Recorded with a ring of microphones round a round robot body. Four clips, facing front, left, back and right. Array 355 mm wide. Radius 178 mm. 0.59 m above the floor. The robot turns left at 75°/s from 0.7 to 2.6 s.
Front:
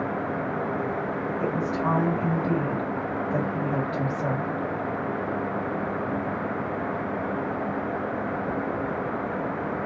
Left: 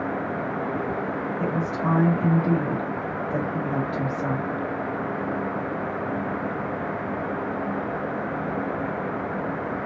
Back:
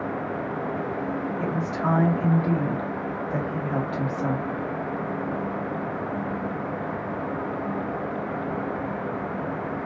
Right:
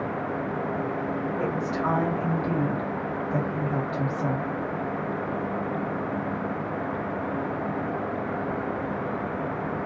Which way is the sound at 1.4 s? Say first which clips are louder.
Left 2 dB, front 3 dB; 110° right.